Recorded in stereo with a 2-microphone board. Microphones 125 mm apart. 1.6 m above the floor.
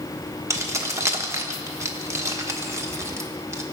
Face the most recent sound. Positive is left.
turn(degrees=-25)  # may be behind; listen again after turning